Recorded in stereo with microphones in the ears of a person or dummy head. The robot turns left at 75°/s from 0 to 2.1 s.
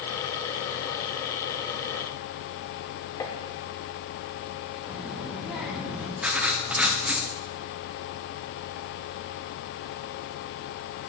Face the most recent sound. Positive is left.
turn(degrees=-10)  # may be behind; listen again after turning